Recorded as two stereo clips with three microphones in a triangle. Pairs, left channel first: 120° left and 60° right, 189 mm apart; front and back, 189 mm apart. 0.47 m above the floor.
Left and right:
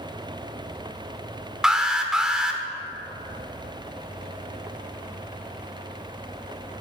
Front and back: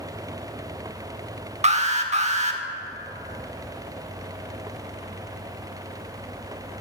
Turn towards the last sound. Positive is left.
turn(degrees=-145)